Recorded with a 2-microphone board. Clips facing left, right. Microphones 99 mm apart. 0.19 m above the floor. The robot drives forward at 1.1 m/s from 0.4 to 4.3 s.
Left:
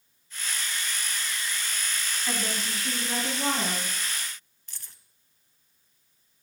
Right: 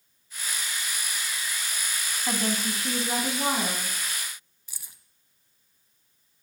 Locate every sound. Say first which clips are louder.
2.3 s a woman speaking: right 5 dB; 30° right (ahead or behind), 1.5 m; by 3.9 s 20° right (ahead or behind), 2 m
4.7 s keys jangling: right 1 dB; 10° right (ahead or behind), 0.7 m